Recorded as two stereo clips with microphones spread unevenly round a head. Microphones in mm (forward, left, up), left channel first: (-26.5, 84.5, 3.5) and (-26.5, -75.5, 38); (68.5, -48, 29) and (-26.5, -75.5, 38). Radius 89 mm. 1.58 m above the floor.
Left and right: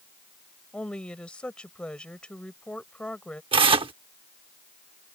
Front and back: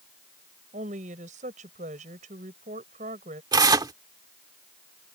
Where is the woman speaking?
175° left.